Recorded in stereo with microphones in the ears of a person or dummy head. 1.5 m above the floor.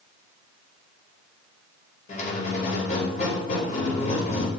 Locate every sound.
2.1 s a squeak: 40° left (ahead or behind), 3.5 m